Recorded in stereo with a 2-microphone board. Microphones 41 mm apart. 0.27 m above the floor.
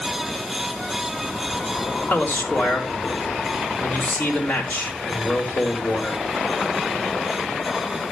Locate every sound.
2.1 s a man speaking: 45° left (ahead or behind), 3.5 m